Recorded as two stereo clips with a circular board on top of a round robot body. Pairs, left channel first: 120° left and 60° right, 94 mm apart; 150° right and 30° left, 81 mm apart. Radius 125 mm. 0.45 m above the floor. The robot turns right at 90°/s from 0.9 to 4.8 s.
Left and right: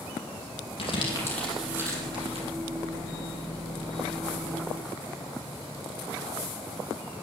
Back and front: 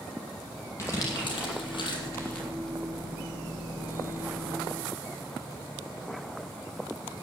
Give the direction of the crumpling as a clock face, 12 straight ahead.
7 o'clock.